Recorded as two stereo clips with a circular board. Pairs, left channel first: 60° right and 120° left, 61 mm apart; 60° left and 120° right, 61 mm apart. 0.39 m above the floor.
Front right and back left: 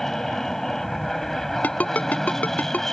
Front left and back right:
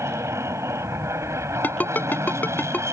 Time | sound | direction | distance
0.0 | an aircraft | 145° right | ?
1.6 | a ringtone | straight ahead | ?